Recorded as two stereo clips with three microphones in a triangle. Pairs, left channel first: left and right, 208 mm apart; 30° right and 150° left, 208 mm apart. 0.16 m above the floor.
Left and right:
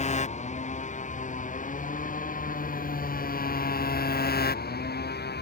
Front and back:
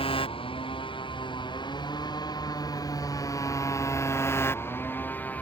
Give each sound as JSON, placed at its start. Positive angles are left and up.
{"t": 0.0, "sound": "a motorcycle", "azimuth_deg": 35}